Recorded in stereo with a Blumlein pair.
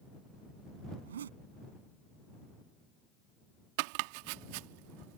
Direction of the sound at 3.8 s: 45° right.